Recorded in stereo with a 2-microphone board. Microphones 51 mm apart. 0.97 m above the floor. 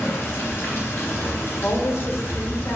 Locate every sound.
0.0 s running water: 45° left (ahead or behind), 0.7 m
1.6 s a woman speaking: 55° left (ahead or behind), 0.5 m